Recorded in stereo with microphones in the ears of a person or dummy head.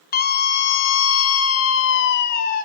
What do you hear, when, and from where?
0.1 s a scream: 45° left (ahead or behind), 1.3 m; by 2.6 s 55° left (ahead or behind), 1.4 m